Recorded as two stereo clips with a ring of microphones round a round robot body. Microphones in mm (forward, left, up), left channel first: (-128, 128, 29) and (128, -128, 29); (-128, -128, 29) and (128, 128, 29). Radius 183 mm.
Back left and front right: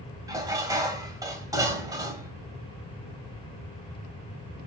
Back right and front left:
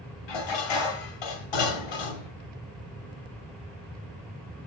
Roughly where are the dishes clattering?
Behind right.